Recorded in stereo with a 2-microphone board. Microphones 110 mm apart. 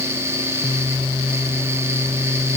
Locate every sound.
Only background noise.